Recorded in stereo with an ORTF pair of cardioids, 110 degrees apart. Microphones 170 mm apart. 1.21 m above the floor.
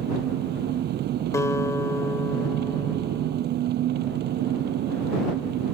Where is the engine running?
65° right.